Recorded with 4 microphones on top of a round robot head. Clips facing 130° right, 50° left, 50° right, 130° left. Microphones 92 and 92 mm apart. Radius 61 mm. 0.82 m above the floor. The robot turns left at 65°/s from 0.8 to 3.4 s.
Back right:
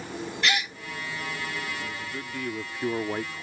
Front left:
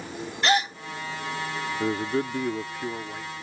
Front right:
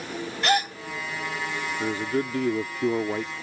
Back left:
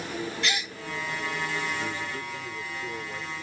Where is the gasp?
5° right.